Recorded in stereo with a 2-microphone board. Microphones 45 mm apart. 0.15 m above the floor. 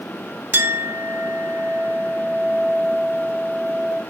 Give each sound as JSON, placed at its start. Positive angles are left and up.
{"t": 0.5, "sound": "a clink", "side_deg": -55, "distance_m": 1.2}